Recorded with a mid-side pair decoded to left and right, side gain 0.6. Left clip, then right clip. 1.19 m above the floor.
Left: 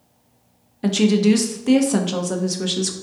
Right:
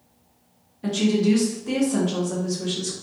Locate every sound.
0.8 s a woman speaking: 45° left, 0.5 m